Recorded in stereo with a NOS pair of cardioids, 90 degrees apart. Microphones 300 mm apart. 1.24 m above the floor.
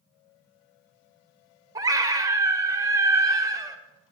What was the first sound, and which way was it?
A scream, 10° right.